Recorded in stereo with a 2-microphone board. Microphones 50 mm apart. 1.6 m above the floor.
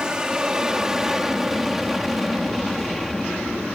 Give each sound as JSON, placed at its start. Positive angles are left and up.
{"t": 0.0, "sound": "an aircraft", "side_deg": -15}